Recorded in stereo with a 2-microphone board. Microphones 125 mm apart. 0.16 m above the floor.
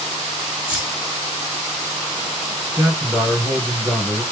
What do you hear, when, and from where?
0.7 s keys jangling: 5° right (ahead or behind), 1.6 m
2.8 s a man speaking: centre (ahead or behind), 1.8 m